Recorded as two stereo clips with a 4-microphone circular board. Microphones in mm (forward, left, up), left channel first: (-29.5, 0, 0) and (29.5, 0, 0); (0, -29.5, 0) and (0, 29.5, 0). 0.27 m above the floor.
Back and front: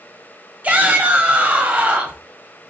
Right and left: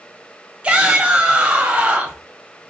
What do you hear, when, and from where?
0.6 s a shout: 40° left, 1.0 m